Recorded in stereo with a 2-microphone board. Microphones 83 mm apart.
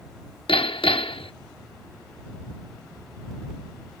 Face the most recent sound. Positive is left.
turn(degrees=85)